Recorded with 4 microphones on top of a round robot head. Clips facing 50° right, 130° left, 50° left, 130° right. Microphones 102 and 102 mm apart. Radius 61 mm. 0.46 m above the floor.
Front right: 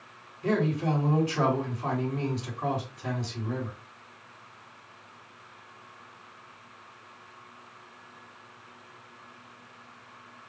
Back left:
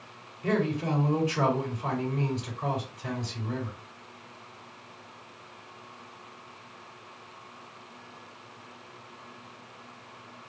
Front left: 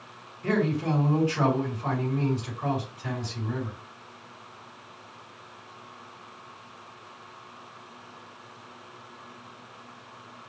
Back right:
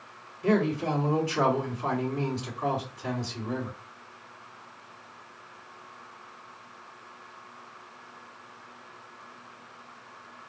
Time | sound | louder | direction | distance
0.4 | a man speaking | front right 1 dB, back right 1 dB | 90° right | 2.5 m